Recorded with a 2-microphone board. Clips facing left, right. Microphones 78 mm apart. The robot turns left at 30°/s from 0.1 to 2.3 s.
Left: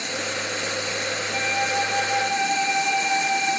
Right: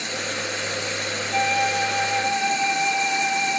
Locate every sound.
1.3 s a flute: 20° left (ahead or behind), 1.6 m; by 3.6 s 50° left (ahead or behind), 1.6 m